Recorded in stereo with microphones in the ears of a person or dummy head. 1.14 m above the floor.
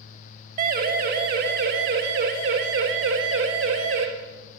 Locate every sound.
0.6 s a siren: 40° right (ahead or behind), 3 m; by 4.0 s 65° right (ahead or behind), 5.5 m